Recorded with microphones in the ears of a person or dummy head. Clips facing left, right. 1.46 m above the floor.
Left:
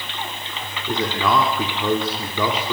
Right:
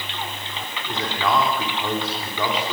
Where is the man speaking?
65° left (ahead or behind), 3.5 m.